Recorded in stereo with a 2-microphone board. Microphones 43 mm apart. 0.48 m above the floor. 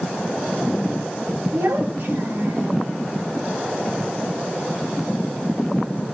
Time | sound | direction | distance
1.5 | a child speaking | 75° right (ahead or behind) | 5 m